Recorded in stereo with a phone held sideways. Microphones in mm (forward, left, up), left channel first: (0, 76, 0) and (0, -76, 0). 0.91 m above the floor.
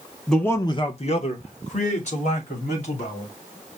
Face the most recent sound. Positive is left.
turn(degrees=50)  # may be behind; listen again after turning